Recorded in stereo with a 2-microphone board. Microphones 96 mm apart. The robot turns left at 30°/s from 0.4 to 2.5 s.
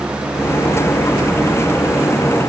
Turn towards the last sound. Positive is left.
No sound to turn to.